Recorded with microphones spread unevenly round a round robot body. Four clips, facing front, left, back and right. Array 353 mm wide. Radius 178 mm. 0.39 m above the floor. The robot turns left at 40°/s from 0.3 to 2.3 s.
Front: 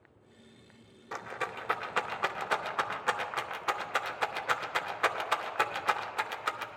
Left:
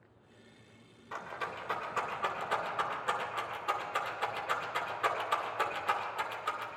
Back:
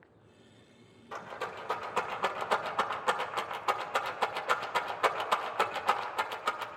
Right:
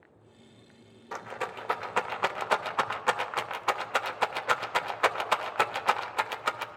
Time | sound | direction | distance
1.1 | a rattle | 60° right | 0.6 m